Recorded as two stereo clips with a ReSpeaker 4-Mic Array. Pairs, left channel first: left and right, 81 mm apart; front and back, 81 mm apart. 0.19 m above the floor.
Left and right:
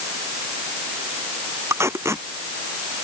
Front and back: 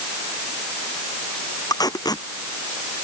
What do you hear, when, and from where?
1.7 s tape being pulled: 35° right